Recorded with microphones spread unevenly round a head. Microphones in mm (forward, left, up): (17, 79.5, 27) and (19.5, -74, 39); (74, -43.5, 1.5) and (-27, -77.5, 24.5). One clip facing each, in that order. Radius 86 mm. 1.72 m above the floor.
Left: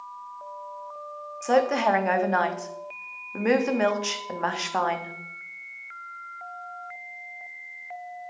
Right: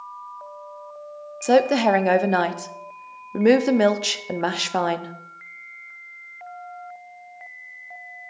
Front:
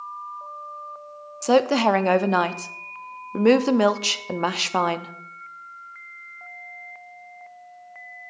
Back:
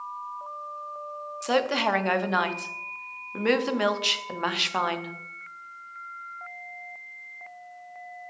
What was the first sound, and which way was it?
A woman speaking, 35° right.